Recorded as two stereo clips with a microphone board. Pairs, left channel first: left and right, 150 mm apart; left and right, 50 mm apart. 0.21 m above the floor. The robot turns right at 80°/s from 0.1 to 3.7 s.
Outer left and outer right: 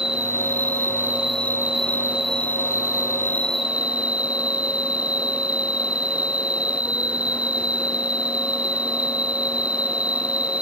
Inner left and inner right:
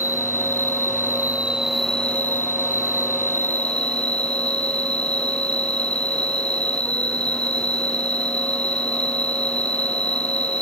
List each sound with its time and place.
0.0 s an insect: 135° right; by 10.6 s 155° left